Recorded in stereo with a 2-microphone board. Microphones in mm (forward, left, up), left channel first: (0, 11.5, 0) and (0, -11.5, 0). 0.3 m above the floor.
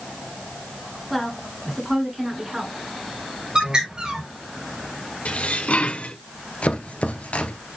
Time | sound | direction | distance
1.1 | a woman speaking | centre (ahead or behind) | 3.5 m
3.5 | a bird | 30° right (ahead or behind) | 5 m
5.2 | dishes clattering | 70° left (ahead or behind) | 2.5 m
6.6 | chopping | 70° left (ahead or behind) | 1.5 m